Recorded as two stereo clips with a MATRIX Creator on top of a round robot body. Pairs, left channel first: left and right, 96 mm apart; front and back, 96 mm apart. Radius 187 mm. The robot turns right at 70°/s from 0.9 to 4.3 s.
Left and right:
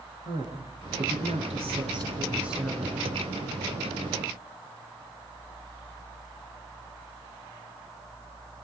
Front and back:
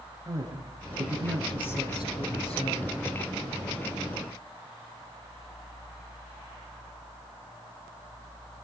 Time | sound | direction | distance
0.2 | a woman speaking | 120° right | 8 m